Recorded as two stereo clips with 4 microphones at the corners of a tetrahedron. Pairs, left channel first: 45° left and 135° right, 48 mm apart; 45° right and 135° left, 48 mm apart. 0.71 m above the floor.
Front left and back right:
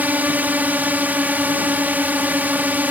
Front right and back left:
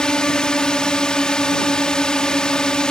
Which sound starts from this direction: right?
A drone, at 0.0 s.